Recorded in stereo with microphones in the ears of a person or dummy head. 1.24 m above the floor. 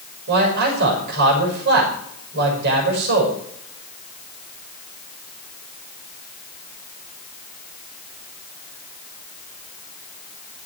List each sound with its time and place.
0.3 s a man speaking: 60° right (ahead or behind), 6 m